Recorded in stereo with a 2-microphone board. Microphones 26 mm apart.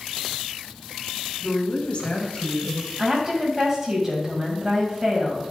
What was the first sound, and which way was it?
A woman speaking, 50° left (ahead or behind).